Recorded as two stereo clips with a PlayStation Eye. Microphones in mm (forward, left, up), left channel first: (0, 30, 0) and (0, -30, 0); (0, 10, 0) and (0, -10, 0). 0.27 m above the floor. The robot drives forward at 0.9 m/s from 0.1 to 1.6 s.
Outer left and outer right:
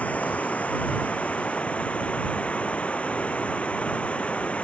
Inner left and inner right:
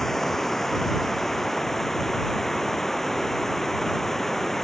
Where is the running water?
25° left (ahead or behind); by 4.7 s 20° left (ahead or behind).